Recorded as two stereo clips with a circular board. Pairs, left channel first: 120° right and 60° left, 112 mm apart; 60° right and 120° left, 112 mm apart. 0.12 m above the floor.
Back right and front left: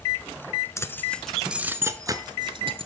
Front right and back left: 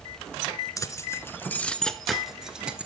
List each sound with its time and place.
0.8 s keys jangling: 85° right, 1.2 m; by 2.9 s 45° left, 1.7 m